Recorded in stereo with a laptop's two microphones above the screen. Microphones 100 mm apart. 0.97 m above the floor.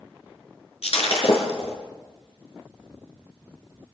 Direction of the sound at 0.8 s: 80° left.